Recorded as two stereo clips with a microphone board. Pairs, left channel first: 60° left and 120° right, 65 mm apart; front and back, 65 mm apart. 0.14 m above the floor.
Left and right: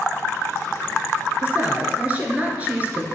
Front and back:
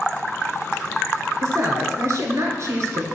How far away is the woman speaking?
About 1.8 m.